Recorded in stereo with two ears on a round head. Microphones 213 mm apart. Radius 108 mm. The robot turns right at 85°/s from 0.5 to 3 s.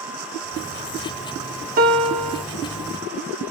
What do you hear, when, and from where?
1.8 s a piano: 145° right, 0.6 m; by 2.4 s 85° right, 0.6 m